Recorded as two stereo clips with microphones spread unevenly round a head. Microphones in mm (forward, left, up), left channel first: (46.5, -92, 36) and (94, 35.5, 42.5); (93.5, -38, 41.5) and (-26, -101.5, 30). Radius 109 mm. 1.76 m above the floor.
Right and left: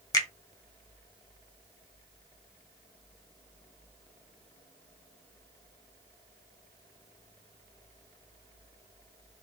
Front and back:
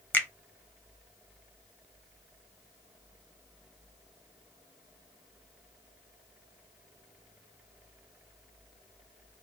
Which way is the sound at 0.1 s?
45° right.